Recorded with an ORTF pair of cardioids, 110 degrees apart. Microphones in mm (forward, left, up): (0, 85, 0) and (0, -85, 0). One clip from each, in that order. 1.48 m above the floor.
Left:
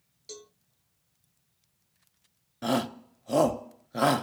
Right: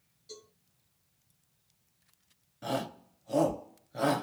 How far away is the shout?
About 0.7 m.